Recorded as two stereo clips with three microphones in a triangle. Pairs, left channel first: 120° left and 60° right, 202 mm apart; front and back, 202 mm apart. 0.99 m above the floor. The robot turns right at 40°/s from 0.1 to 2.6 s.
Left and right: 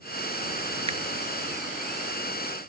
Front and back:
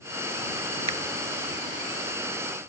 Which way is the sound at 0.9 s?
120° right.